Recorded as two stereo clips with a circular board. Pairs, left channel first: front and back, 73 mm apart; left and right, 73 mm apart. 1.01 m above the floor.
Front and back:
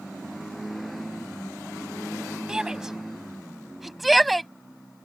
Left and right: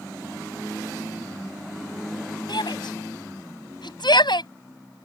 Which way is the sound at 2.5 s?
100° left.